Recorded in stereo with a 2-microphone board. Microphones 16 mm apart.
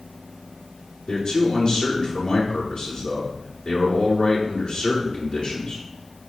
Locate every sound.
1.1 s a man speaking: 65° left (ahead or behind), 7.5 m